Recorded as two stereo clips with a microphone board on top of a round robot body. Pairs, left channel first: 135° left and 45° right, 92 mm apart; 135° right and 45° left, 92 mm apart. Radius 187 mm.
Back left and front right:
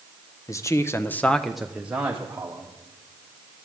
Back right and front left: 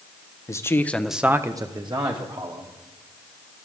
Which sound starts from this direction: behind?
A man speaking, at 0.5 s.